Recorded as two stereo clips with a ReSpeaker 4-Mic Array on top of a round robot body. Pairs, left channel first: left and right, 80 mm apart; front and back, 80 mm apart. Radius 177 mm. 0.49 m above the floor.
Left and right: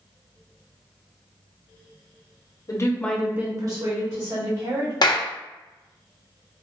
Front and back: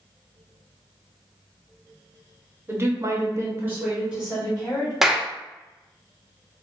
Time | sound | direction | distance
2.7 | a woman speaking | 125° left | 1.2 m
5.0 | a clap | 95° left | 0.7 m